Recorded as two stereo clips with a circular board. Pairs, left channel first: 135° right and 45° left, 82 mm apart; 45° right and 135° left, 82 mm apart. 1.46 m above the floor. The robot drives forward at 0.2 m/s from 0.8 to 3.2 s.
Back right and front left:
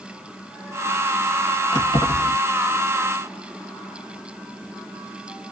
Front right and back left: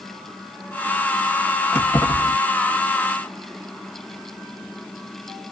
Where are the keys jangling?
110° right, 1.4 m; by 2.4 s 115° right, 1.4 m.